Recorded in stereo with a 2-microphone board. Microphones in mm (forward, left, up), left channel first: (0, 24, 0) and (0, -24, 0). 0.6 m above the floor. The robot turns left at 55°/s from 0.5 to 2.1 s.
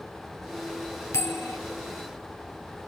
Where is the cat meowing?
I don't hear a cat meowing.